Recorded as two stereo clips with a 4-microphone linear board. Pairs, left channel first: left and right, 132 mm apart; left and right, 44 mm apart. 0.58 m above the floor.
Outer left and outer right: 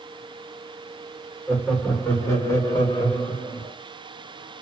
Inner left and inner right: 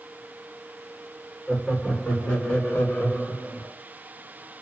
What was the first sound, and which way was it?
Laughter, 5° left (ahead or behind).